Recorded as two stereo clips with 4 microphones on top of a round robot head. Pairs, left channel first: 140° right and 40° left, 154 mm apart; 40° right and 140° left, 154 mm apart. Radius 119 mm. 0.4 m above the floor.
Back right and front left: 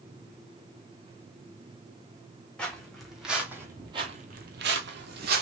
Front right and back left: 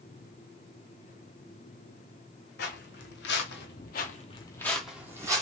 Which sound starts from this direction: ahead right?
Footsteps, at 2.6 s.